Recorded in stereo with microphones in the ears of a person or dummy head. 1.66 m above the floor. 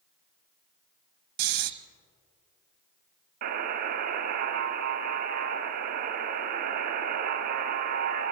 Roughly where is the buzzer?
Right.